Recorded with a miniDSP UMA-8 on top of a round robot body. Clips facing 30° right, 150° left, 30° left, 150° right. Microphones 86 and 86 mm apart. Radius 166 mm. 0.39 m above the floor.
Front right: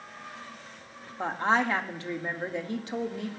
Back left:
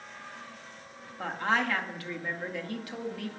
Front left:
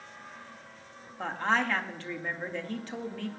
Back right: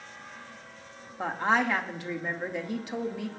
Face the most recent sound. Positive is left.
turn(degrees=-80)